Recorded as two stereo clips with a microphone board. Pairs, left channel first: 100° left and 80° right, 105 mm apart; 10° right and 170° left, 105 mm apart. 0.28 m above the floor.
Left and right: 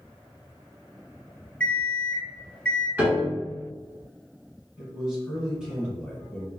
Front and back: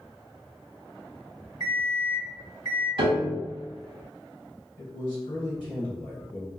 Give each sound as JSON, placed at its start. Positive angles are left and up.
{"t": 1.6, "sound": "an alarm clock", "azimuth_deg": 30, "distance_m": 1.0}
{"t": 3.0, "sound": "a piano", "azimuth_deg": -150, "distance_m": 0.6}
{"t": 4.8, "sound": "a man speaking", "azimuth_deg": 0, "distance_m": 1.3}